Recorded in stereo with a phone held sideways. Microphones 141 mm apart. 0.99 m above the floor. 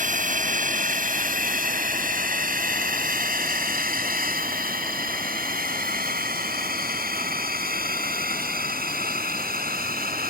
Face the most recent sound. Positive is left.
turn(degrees=-80)